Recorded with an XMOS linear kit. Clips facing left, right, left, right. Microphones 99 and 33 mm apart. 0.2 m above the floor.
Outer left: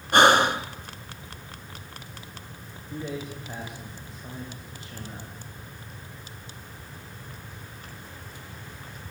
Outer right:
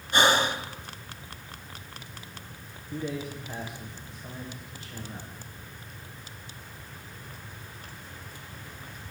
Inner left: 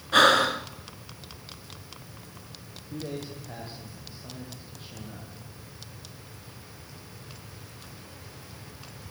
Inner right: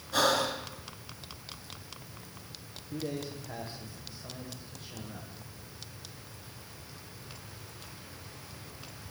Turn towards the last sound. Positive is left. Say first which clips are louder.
# outer right 1 dB, even
turn(degrees=25)  # may be behind; listen again after turning